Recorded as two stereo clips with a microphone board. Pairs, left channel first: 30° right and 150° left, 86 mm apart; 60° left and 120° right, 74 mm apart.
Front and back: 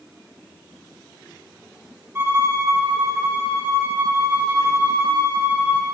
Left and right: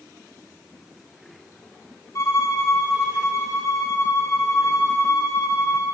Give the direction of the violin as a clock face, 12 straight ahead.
9 o'clock.